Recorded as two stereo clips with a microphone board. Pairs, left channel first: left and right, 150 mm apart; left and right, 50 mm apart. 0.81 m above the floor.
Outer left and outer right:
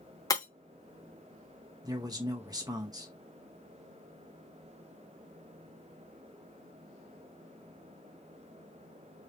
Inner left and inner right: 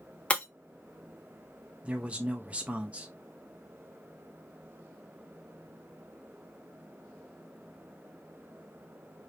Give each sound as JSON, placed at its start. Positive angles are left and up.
{"t": 0.3, "sound": "breaking glass", "side_deg": 25, "distance_m": 0.8}
{"t": 1.8, "sound": "a man speaking", "side_deg": -25, "distance_m": 0.6}